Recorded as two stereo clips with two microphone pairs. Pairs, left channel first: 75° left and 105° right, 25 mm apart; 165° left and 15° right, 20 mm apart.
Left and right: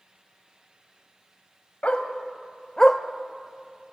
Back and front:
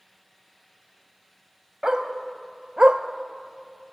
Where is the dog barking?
35° left, 1.5 m; by 3.9 s 60° right, 0.8 m.